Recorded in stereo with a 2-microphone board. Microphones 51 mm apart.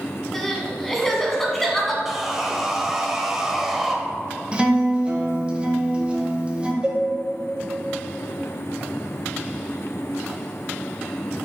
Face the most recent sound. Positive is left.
turn(degrees=-20)  # may be behind; listen again after turning